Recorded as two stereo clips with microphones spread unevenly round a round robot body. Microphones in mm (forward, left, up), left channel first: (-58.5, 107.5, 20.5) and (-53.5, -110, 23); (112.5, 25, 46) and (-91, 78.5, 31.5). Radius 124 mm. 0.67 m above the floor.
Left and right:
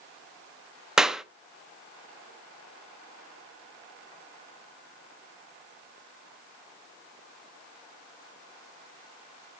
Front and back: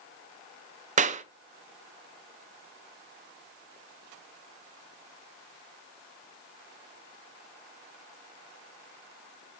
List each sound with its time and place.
1.0 s a clap: 175° right, 0.6 m